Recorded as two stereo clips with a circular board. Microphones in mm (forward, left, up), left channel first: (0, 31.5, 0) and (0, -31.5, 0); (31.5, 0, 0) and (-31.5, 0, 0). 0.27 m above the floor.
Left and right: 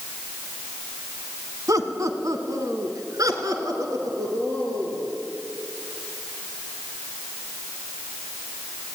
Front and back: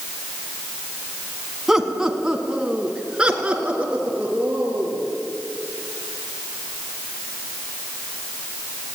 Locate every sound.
1.7 s laughter: 95° right, 2 m; by 5.1 s 110° right, 5 m